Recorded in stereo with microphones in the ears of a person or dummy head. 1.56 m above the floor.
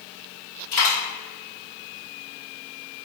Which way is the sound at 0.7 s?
50° left (ahead or behind).